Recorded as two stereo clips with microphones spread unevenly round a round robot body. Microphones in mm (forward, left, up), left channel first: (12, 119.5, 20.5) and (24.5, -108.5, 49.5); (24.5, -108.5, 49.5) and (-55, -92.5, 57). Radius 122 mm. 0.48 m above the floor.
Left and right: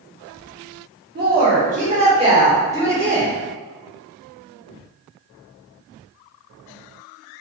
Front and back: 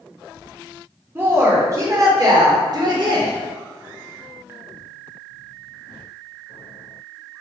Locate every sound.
1.1 s a woman speaking: 130° right, 1.7 m; by 3.3 s 175° right, 2.0 m